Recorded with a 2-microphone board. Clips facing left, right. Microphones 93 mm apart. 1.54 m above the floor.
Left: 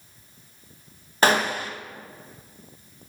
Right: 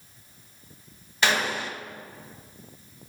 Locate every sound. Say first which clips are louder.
1.2 s a gunshot: left 5 dB; 40° left (ahead or behind), 0.9 m